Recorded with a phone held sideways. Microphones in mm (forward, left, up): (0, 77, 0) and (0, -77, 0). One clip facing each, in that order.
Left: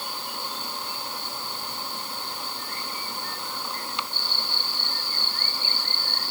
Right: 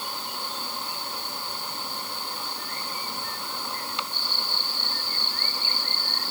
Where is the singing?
I don't hear singing.